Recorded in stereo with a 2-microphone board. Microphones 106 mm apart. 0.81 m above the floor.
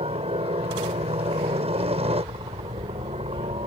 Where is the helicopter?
65° right (ahead or behind).